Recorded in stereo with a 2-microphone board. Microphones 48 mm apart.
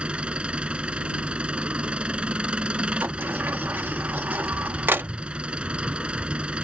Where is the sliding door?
45° right (ahead or behind).